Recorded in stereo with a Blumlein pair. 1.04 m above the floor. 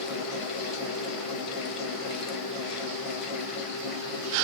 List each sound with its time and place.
0.0 s a fan: 20° left, 0.9 m